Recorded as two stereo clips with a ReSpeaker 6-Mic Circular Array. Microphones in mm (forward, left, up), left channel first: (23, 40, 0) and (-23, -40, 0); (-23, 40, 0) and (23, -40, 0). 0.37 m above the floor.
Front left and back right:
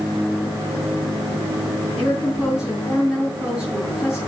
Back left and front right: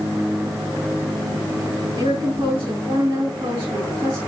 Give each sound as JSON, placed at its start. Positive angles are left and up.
{"t": 2.0, "sound": "a woman speaking", "azimuth_deg": -35, "distance_m": 5.0}